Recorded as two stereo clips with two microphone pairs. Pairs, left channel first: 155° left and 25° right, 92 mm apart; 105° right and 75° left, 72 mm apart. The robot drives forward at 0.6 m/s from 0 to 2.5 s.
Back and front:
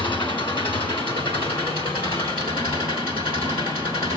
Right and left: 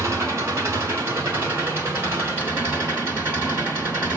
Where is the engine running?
125° left, 5.5 m; by 4.2 s 135° left, 6.5 m.